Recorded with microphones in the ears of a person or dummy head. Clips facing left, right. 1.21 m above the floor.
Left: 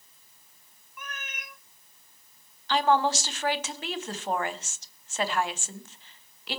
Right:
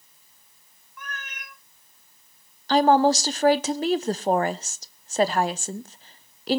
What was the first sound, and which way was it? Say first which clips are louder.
A cat meowing: right 2 dB; 20° left (ahead or behind).